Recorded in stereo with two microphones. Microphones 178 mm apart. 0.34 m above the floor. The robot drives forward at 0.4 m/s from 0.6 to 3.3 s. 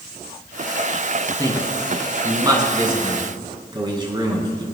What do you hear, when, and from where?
1.4 s a man speaking: 20° right (ahead or behind), 3.5 m; by 4.6 s 25° right (ahead or behind), 3 m